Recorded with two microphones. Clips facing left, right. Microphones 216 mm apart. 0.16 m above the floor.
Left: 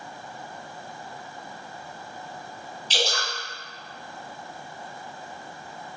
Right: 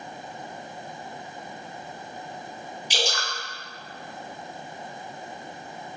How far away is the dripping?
About 1.3 m.